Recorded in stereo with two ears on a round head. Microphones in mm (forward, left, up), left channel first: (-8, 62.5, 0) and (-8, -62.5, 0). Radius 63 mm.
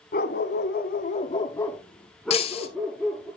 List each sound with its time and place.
0.1 s a dog barking: 65° left (ahead or behind), 1.4 m; by 3.3 s 10° right (ahead or behind), 3 m
2.3 s breaking glass: 45° left (ahead or behind), 1.4 m